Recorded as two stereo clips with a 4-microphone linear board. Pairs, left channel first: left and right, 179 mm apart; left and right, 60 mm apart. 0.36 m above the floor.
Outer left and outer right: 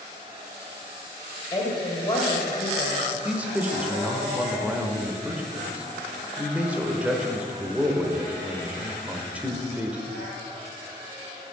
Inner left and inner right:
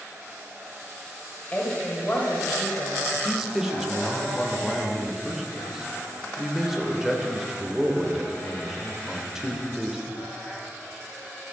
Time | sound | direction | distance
1.5 | a woman speaking | 25° left (ahead or behind) | 1.7 m
3.1 | a man speaking | 10° right (ahead or behind) | 0.9 m